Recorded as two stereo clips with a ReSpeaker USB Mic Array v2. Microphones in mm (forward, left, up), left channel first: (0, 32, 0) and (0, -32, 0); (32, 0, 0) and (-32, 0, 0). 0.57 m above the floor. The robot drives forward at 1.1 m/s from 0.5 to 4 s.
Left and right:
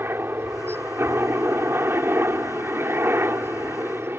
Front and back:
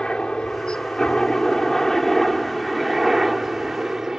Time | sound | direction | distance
0.0 | a helicopter | 70° right | ?